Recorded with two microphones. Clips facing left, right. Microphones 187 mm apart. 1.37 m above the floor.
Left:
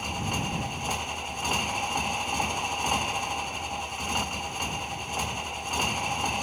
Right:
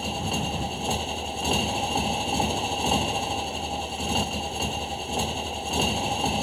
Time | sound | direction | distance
0.0 | a motorcycle | 30° right (ahead or behind) | ?